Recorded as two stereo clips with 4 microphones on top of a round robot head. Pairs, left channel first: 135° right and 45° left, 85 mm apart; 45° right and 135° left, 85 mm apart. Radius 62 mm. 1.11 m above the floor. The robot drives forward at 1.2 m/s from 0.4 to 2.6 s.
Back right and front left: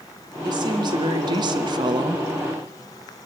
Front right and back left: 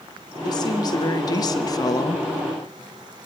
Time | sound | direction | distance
0.4 | a woman speaking | straight ahead | 3 m